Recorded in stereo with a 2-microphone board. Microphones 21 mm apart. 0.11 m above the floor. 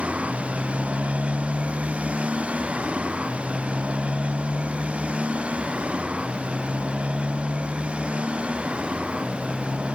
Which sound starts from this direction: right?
A motorcycle, at 0.0 s.